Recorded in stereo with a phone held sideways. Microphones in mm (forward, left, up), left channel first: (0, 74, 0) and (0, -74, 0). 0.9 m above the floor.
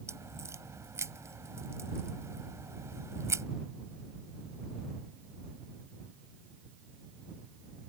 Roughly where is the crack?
Centre.